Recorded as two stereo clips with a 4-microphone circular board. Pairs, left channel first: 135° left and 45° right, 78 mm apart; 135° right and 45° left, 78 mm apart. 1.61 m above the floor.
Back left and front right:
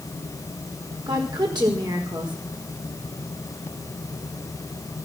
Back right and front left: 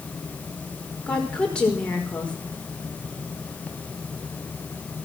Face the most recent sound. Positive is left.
turn(degrees=-60)